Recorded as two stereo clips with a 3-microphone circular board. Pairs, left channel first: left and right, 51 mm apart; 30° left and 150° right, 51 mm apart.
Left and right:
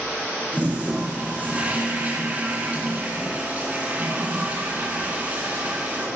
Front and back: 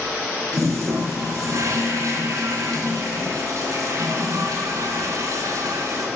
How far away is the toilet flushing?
About 3 m.